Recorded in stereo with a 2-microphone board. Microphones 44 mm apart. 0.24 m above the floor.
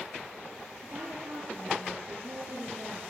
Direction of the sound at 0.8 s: 45° right (ahead or behind).